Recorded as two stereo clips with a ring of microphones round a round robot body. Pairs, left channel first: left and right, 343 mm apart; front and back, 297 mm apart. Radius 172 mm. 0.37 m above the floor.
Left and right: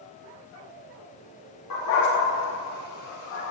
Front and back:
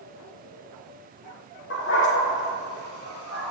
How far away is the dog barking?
About 6 m.